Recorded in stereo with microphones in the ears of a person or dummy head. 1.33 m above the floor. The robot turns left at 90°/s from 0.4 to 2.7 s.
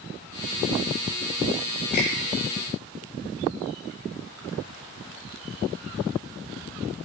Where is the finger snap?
40° left (ahead or behind), 7 m; by 2.1 s 55° left (ahead or behind), 7 m.